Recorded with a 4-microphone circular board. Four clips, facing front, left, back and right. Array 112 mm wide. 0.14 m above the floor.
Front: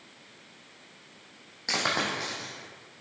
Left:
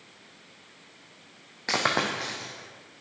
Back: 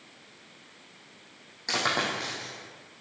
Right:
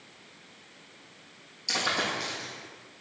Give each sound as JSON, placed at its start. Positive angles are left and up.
{"t": 1.7, "sound": "a dropped coin", "azimuth_deg": 90, "distance_m": 2.0}